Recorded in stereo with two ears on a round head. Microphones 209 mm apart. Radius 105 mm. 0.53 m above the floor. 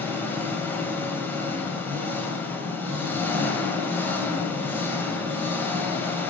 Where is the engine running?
10° left (ahead or behind), 2 m.